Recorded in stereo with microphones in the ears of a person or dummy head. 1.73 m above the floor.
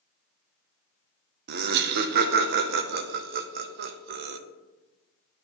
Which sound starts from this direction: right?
Laughter, at 1.5 s.